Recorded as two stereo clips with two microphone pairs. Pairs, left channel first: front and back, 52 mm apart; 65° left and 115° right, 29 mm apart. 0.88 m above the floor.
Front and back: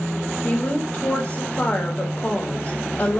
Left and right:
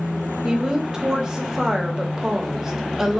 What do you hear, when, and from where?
0.4 s a woman speaking: 50° right, 0.7 m